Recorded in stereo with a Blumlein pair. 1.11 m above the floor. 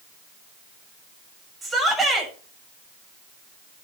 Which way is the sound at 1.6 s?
10° right.